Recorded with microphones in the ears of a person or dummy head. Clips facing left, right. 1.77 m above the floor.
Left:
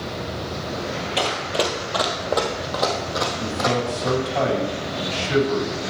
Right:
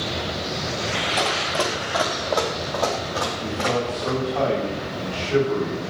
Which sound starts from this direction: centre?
Running footsteps, at 1.2 s.